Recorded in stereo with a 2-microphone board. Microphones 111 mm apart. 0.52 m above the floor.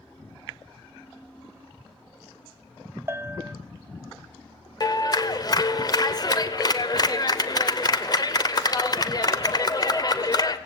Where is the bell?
25° right (ahead or behind), 1.0 m.